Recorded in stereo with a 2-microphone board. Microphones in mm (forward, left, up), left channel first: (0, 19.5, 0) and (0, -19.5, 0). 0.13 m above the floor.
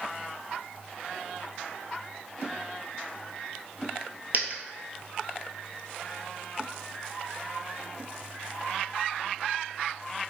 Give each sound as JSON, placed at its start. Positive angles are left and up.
{"t": 4.3, "sound": "a dropped coin", "side_deg": -50, "distance_m": 0.8}